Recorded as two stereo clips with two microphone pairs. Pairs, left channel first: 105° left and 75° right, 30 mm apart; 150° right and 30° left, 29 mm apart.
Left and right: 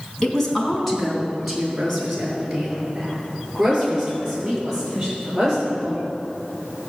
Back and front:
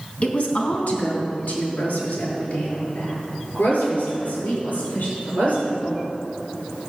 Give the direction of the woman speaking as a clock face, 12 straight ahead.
6 o'clock.